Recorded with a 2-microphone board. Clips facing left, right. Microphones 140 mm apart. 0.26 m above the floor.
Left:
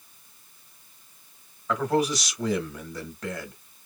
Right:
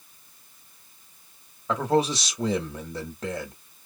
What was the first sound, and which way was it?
A man speaking, 25° right (ahead or behind).